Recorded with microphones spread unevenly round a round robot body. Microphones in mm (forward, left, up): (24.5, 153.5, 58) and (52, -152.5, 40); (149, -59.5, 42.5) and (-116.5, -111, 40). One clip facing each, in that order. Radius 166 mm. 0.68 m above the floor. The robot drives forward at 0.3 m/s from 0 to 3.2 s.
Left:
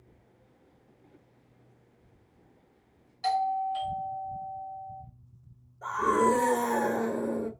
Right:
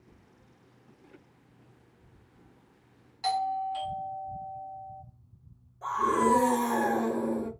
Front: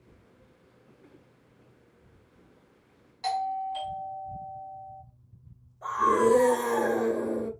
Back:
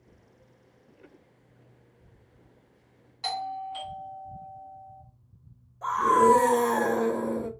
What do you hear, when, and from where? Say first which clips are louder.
3.2 s a doorbell: left 2 dB, front 4 dB; 130° right, 1.1 m
5.8 s a scream: left 1 dB, back 1 dB; 145° right, 1.6 m